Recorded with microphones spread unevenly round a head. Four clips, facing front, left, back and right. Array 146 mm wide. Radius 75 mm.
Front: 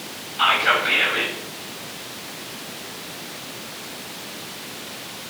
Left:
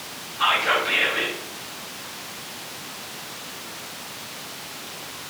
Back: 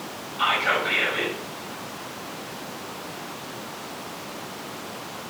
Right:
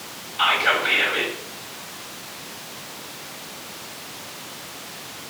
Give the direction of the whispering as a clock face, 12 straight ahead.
2 o'clock.